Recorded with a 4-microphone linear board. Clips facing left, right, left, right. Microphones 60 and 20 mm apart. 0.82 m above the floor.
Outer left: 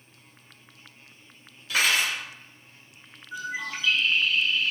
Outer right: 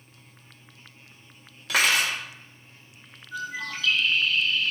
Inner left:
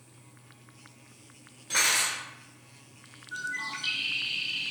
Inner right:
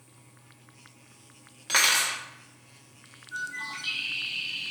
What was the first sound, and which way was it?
Cutlery clinking, 80° right.